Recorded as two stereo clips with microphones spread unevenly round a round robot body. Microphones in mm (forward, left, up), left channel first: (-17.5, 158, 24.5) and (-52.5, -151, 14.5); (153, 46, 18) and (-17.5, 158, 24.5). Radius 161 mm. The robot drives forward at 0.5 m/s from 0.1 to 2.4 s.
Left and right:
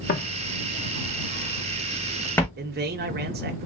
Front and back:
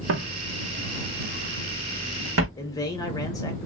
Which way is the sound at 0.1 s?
140° left.